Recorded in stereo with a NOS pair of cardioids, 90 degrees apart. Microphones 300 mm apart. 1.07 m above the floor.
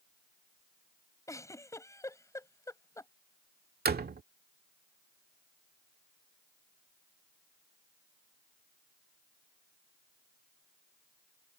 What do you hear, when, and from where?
1.3 s a giggle: 10° left
3.9 s a door slam: 30° right